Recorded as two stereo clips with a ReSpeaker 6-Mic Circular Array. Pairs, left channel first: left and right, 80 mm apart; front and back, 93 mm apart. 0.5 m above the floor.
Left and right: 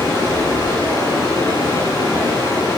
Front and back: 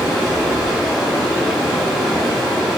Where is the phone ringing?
I don't hear a phone ringing.